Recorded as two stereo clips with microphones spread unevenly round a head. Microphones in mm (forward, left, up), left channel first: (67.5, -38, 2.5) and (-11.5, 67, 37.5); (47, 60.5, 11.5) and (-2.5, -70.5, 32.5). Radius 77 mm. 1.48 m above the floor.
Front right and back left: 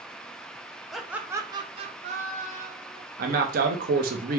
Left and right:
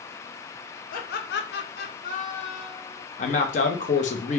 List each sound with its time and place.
0.9 s laughter: 45° left, 0.6 m; by 3.0 s 135° left, 1.1 m
3.2 s a man speaking: 115° left, 0.7 m